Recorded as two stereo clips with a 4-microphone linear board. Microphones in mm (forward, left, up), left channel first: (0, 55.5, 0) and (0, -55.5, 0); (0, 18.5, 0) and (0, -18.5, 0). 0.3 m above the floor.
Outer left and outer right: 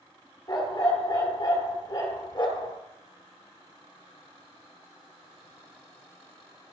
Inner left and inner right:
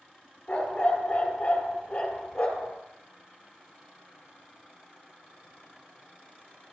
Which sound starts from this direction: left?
A dog barking, at 0.5 s.